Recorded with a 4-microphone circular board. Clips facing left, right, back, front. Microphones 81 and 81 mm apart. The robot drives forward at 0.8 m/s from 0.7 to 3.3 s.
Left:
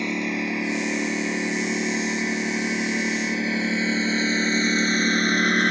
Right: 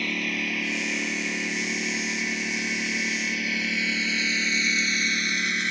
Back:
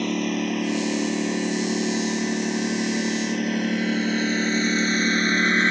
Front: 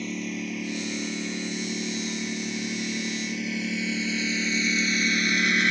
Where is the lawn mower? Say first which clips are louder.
Left 4 dB, back 8 dB; 160° left; by 5.7 s 125° left.